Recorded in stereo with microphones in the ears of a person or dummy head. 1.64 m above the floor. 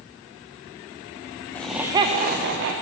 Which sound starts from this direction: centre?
Laughter, at 1.6 s.